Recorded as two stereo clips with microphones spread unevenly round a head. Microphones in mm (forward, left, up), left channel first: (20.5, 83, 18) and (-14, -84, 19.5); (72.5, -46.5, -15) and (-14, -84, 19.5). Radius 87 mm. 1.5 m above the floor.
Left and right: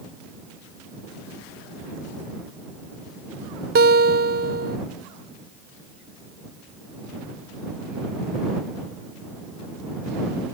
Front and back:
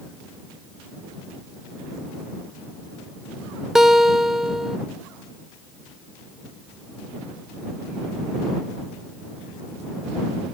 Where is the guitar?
65° right.